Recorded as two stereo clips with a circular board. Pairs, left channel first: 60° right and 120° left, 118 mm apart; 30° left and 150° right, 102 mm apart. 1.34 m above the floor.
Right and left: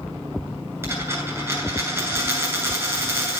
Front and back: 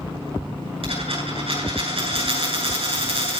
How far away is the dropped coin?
About 9 m.